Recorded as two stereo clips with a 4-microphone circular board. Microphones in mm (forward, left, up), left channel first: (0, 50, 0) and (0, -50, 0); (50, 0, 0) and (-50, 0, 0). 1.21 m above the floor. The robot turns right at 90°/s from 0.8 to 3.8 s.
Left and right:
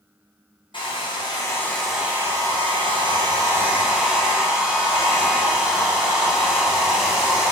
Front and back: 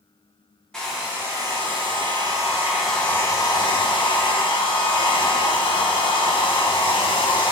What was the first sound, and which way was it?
A hair dryer, 85° left.